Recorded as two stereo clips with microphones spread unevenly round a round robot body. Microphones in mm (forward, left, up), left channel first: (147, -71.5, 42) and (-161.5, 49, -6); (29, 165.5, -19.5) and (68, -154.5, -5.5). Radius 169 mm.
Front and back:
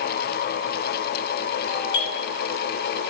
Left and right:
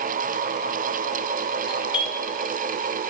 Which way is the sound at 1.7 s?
20° left.